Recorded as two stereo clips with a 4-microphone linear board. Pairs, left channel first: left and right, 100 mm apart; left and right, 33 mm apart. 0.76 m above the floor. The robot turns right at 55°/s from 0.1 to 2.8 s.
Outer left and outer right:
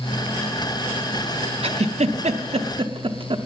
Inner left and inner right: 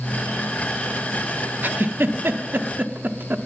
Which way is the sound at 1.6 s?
65° right (ahead or behind).